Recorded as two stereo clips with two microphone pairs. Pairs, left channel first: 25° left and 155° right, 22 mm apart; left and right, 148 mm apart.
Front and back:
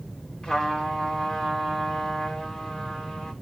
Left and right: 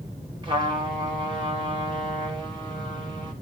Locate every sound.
0.4 s a trumpet: 35° right, 3.5 m